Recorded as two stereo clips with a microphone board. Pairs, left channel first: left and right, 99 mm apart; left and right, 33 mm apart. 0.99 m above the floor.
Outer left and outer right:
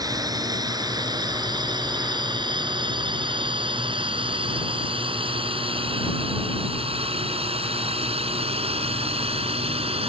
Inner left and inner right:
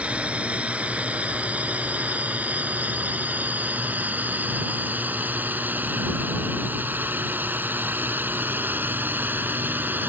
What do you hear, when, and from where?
0.0 s a drone: 40° right (ahead or behind); by 10.1 s 80° right